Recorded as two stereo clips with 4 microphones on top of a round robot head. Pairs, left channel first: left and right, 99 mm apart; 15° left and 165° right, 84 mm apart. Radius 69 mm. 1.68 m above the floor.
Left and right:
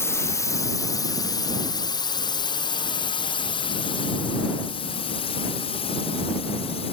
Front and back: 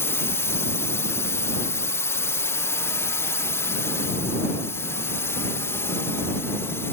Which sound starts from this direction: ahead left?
A drone, at 0.0 s.